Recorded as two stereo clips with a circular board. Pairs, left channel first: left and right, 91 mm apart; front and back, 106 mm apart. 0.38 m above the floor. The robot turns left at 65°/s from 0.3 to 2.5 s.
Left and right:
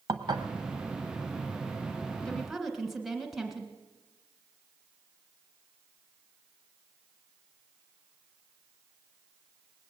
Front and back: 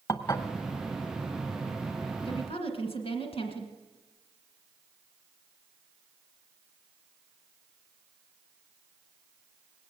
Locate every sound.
0.1 s dishes clattering: 65° right, 1.1 m; by 0.5 s 70° right, 1.1 m
2.2 s a woman speaking: 15° left, 1.7 m; by 3.7 s 5° right, 1.7 m